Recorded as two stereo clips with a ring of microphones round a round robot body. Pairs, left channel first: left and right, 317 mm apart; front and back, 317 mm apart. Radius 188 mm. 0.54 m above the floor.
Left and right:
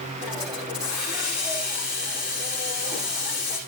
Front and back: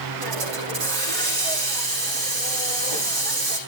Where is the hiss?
175° right, 9 m.